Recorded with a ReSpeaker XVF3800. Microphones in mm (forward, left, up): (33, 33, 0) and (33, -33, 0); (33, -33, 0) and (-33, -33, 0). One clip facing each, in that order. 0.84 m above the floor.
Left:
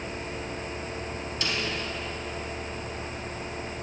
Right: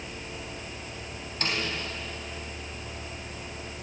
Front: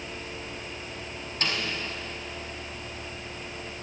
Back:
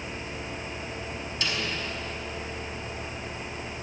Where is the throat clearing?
I don't hear throat clearing.